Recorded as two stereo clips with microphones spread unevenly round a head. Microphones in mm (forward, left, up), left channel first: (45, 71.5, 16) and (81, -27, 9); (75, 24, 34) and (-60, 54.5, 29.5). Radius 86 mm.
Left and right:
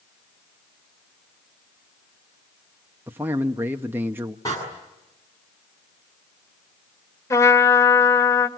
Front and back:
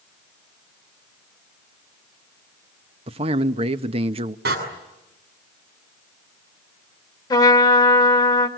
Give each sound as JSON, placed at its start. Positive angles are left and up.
{"t": 3.1, "sound": "a man speaking", "azimuth_deg": -145, "distance_m": 0.9}
{"t": 4.5, "sound": "a door slam", "azimuth_deg": 180, "distance_m": 7.0}
{"t": 7.3, "sound": "a trumpet", "azimuth_deg": 50, "distance_m": 2.0}